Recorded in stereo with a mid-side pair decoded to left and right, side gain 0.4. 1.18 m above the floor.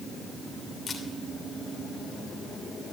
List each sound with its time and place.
0.9 s a camera shutter: 45° left, 3 m